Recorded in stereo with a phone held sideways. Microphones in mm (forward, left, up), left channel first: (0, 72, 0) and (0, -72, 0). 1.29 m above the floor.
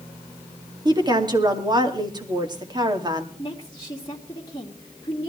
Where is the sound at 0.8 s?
30° right (ahead or behind), 2 m.